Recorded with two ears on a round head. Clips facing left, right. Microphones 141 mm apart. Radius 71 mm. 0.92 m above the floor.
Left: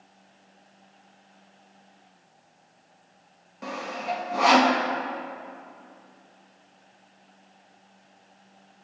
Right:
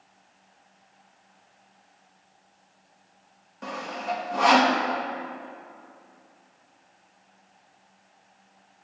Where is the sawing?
5° left (ahead or behind), 0.8 m.